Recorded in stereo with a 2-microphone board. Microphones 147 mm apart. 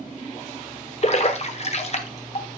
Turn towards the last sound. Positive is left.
turn(degrees=50)  # may be behind; listen again after turning